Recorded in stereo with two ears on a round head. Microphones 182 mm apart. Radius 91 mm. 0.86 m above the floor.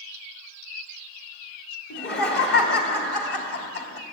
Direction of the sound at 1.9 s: 55° left (ahead or behind).